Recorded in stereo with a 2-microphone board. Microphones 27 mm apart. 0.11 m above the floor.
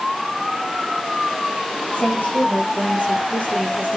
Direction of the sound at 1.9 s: 70° left (ahead or behind).